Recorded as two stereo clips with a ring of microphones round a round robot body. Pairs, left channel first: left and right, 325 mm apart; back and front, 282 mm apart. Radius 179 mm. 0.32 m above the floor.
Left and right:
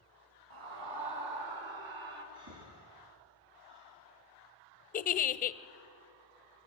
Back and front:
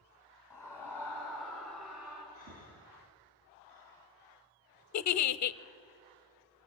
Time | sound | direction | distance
0.5 | a scream | 100° right | 3 m
2.3 | breathing | 60° right | 4.5 m
4.9 | a giggle | 155° left | 0.6 m